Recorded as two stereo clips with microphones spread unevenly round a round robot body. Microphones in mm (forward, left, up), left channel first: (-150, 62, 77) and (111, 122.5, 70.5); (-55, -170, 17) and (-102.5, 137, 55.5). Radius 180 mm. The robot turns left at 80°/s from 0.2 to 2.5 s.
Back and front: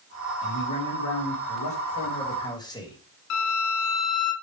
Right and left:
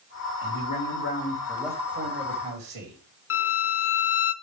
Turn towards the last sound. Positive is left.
turn(degrees=-130)